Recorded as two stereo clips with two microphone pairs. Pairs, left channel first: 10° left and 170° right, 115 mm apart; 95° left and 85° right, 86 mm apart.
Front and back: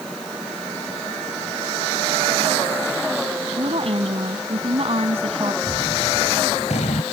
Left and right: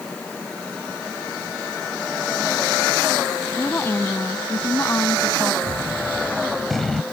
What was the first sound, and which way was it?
A woman speaking, 155° left.